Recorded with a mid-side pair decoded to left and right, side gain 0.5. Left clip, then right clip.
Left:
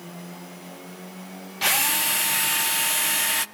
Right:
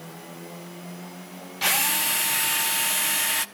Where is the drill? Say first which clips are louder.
Left 1 dB; 5° left, 0.9 m.